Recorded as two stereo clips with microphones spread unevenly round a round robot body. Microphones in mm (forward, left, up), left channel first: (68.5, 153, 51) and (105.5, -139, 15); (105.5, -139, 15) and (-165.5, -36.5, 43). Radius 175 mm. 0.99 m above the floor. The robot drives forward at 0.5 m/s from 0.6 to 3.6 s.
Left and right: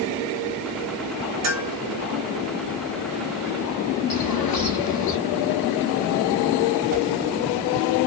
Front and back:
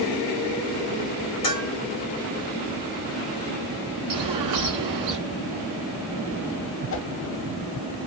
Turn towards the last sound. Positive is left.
turn(degrees=-35)